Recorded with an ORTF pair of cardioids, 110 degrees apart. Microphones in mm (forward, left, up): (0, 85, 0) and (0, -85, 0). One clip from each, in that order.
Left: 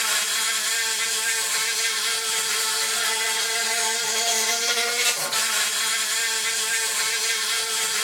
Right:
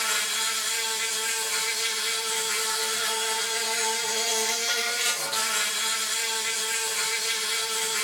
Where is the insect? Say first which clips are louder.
Left 3 dB; 30° left, 1.2 m.